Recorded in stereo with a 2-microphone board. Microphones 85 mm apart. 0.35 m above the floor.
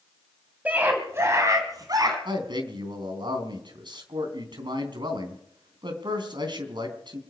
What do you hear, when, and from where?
0.7 s a scream: 20° right (ahead or behind), 1.8 m; by 2.1 s 50° right (ahead or behind), 2.5 m
2.2 s a man speaking: 65° right (ahead or behind), 3.5 m